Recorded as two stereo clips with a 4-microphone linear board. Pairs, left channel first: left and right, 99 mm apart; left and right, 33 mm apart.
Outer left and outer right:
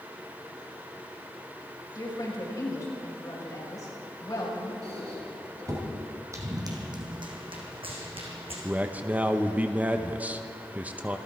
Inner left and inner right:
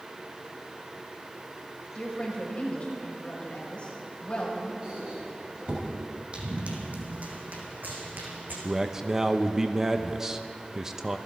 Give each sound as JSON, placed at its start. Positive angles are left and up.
{"t": 1.9, "sound": "a woman speaking", "side_deg": 35, "distance_m": 5.0}
{"t": 4.8, "sound": "a squeak", "side_deg": -35, "distance_m": 4.0}
{"t": 6.3, "sound": "running footsteps", "side_deg": -30, "distance_m": 2.5}
{"t": 8.6, "sound": "a man speaking", "side_deg": -15, "distance_m": 0.8}